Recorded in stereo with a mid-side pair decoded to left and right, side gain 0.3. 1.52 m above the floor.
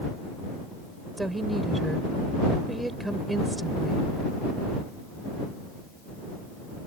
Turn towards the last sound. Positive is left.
turn(degrees=-20)